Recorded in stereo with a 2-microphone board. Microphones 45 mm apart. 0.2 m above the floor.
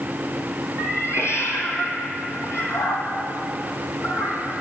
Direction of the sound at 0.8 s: 70° left (ahead or behind).